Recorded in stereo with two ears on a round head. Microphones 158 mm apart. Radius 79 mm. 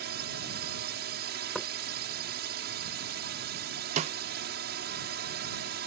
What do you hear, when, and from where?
0.0 s a drone: 60° right (ahead or behind)
1.6 s knocking: 5° left (ahead or behind)
4.0 s a snare drum: 40° right (ahead or behind)